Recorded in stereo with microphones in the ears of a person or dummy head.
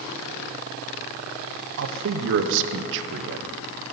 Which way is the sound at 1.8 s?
70° right (ahead or behind).